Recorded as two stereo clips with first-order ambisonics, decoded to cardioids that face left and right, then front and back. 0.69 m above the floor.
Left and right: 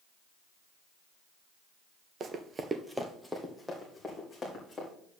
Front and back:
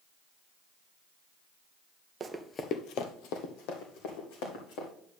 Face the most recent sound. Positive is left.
turn(degrees=5)